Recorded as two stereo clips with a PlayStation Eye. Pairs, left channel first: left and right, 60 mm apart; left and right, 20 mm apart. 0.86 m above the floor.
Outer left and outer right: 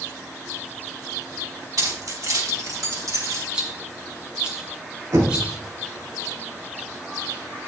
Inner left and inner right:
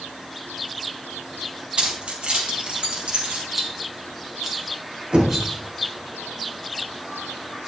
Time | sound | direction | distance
1.8 | keys jangling | 85° right | 3 m
3.5 | a rattle | 20° right (ahead or behind) | 2 m
5.1 | knocking | 70° right (ahead or behind) | 3 m